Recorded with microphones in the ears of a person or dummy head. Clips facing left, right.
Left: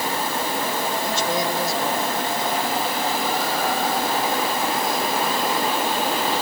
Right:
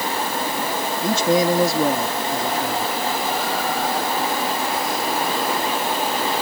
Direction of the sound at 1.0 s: 75° right (ahead or behind).